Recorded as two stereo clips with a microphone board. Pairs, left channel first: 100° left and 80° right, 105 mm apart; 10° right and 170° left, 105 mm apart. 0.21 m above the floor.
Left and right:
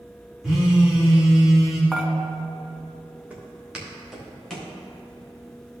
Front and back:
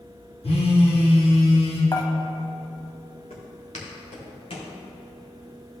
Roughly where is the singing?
I don't hear singing.